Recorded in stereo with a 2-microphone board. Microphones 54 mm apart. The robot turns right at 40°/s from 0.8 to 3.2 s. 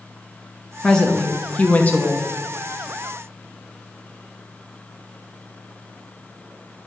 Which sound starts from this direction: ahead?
A woman speaking, at 0.8 s.